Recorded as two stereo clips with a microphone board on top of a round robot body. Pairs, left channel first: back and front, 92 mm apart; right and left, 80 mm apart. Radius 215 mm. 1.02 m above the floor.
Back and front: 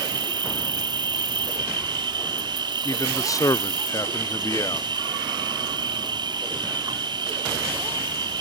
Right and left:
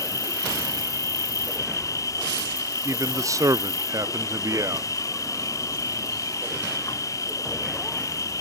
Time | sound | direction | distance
0.0 | an insect | 40° right | ?
2.9 | a man speaking | 135° left | ?